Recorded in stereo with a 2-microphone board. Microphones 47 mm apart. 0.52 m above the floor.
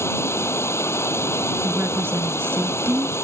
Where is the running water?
85° left.